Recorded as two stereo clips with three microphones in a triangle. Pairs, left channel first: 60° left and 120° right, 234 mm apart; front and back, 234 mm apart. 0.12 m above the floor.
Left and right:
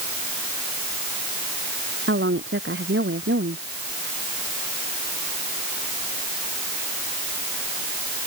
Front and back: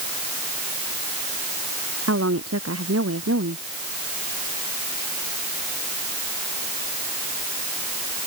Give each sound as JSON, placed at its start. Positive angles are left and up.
{"t": 2.1, "sound": "a woman speaking", "azimuth_deg": -160}